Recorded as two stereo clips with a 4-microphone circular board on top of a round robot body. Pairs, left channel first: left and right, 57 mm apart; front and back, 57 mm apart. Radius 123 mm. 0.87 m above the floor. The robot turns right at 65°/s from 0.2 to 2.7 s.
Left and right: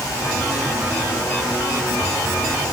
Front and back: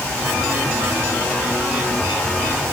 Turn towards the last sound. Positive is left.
No sound to turn to.